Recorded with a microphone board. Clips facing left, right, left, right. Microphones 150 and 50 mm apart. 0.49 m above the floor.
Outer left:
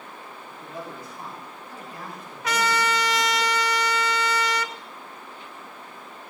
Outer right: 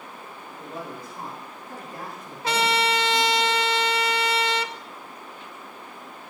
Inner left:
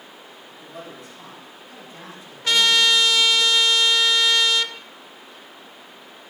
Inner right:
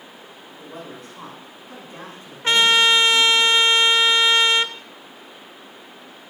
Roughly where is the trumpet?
Right.